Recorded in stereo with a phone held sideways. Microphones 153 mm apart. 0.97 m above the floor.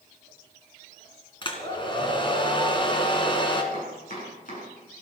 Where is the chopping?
60° left (ahead or behind), 8 m.